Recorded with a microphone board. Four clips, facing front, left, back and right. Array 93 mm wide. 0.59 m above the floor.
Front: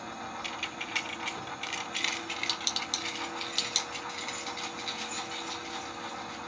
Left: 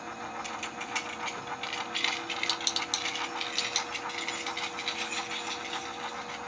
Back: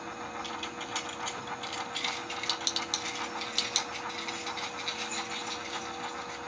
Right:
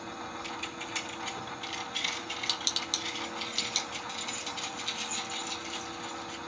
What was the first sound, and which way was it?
Keys jangling, 10° left.